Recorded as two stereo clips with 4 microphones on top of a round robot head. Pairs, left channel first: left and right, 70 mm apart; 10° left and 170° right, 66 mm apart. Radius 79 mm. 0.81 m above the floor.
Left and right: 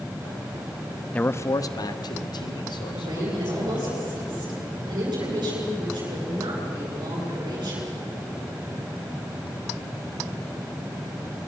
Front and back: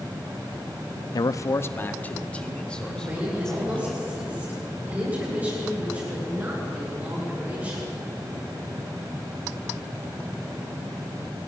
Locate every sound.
1.1 s a man speaking: 20° left, 0.8 m; by 3.9 s 90° left, 4 m
2.9 s a woman speaking: 105° right, 10 m